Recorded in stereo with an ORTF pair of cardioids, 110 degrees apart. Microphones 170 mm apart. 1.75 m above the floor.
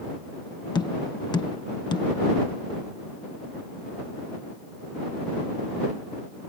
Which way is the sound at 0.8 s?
25° left.